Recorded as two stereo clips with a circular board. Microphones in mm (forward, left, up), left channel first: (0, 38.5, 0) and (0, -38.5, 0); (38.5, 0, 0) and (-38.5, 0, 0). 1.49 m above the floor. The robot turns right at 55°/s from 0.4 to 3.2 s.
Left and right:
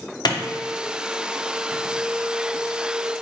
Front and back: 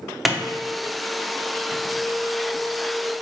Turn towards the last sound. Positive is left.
turn(degrees=-115)